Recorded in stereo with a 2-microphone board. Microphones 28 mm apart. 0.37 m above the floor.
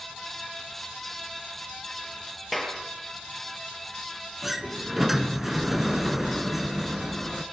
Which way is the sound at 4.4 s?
10° right (ahead or behind).